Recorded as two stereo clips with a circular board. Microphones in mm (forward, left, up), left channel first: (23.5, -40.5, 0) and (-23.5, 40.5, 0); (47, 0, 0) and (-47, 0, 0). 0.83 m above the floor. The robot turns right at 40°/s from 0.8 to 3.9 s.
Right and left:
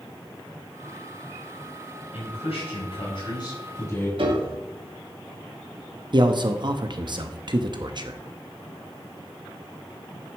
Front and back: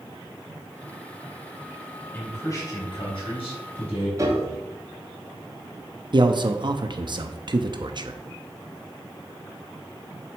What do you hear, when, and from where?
2.1 s a man speaking: 75° right, 4.5 m; by 4.1 s 5° right, 4.5 m
4.2 s a piano: 130° left, 1.5 m
6.1 s a man speaking: 150° left, 0.7 m